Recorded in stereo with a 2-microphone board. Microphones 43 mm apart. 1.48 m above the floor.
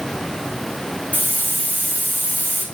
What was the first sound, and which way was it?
A hiss, 45° left (ahead or behind).